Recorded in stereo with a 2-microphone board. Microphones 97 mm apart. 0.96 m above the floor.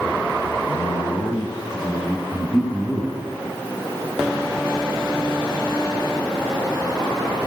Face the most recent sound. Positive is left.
turn(degrees=20)  # may be behind; listen again after turning